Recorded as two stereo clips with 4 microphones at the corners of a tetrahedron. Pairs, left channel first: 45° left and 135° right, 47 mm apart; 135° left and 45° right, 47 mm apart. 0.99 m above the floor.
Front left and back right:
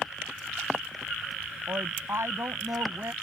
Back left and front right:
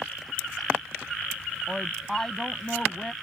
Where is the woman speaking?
140° right; by 3.1 s 145° right.